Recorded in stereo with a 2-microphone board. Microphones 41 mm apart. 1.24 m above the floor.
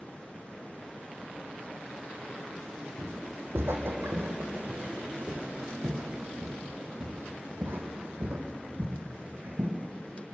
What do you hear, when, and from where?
3.0 s footsteps: 70° right (ahead or behind), 4 m; by 9.8 s 45° right (ahead or behind), 4.5 m